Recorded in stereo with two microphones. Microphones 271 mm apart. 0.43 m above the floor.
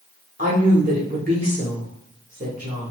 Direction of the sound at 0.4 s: 30° right (ahead or behind).